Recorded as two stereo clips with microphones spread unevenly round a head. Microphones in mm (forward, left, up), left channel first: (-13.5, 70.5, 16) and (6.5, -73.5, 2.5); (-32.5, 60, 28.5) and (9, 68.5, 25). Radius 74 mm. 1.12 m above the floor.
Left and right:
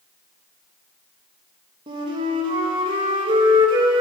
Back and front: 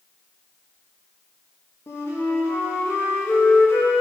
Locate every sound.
1.9 s a flute: 135° right, 1.6 m